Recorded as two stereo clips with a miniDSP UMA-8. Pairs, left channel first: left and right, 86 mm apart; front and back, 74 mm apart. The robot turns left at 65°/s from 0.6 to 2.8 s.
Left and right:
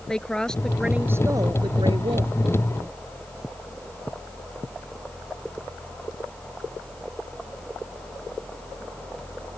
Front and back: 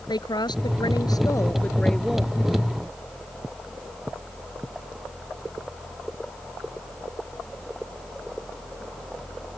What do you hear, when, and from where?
0.1 s a woman speaking: 10° left; by 2.3 s 105° right